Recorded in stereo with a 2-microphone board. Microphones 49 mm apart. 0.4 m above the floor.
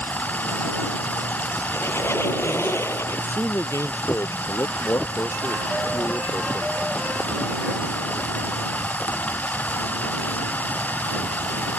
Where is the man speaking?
75° left (ahead or behind).